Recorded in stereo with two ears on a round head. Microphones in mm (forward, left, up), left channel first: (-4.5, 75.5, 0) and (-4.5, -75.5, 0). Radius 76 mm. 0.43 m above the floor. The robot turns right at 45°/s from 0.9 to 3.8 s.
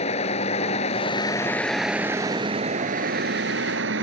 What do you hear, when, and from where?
0.0 s a vehicle: 140° left; by 4.0 s 90° right